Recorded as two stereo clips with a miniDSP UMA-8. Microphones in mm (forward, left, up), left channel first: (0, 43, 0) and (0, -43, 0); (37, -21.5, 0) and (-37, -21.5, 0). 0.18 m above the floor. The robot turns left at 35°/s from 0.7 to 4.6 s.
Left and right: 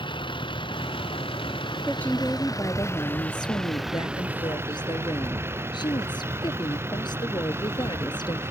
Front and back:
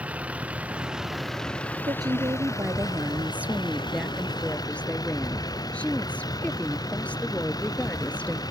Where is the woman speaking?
165° left; by 8.4 s 70° left.